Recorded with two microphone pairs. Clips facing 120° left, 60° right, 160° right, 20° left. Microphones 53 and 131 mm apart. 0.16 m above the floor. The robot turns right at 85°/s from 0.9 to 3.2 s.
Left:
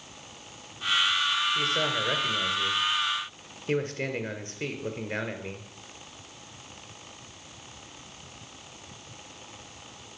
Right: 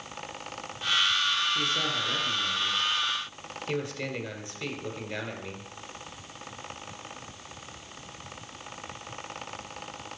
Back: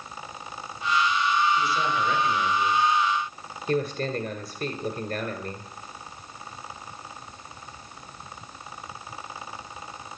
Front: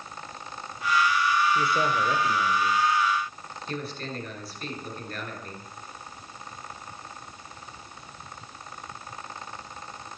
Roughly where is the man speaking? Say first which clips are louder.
Left 2 dB, even; ahead left.